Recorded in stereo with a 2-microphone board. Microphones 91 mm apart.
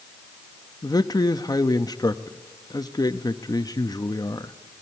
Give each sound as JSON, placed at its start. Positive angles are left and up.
{"t": 0.8, "sound": "a man speaking", "side_deg": 45, "distance_m": 0.7}